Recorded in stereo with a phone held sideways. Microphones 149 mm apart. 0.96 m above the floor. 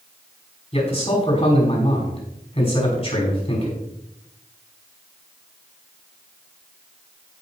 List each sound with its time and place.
0.7 s a man speaking: 45° left (ahead or behind), 6 m